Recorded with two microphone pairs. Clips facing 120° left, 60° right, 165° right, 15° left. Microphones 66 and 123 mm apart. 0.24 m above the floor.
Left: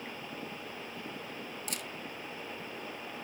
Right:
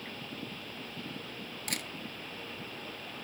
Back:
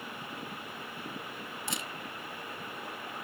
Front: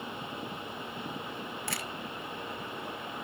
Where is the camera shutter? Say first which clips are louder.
Right 5 dB, back 2 dB; 95° right, 0.9 m.